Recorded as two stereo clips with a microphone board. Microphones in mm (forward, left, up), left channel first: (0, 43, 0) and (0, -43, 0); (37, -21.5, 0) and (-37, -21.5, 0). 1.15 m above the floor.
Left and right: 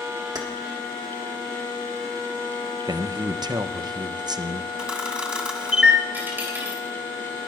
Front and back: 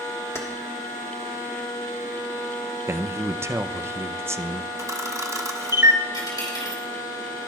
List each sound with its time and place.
0.3 s keys jangling: 50° right, 1.4 m
2.9 s a man speaking: 125° right, 0.6 m
4.8 s a camera shutter: 165° right, 1.4 m
6.1 s a dropped coin: 25° right, 3.5 m